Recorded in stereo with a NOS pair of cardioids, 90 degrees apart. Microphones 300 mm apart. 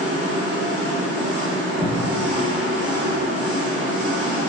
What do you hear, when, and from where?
0.0 s an engine running: 40° right, 1.1 m
1.8 s an alarm: 55° right, 1.5 m